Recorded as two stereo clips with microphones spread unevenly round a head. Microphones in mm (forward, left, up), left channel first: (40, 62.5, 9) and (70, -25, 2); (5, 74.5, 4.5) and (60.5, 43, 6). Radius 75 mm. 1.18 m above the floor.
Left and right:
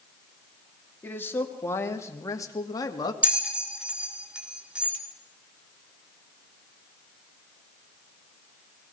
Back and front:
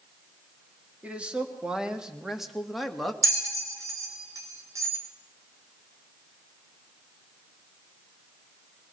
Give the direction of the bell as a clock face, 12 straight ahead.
12 o'clock.